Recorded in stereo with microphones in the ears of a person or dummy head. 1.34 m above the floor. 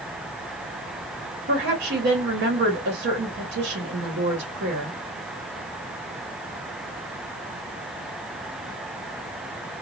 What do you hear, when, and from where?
1.5 s a woman speaking: 55° right (ahead or behind), 1.5 m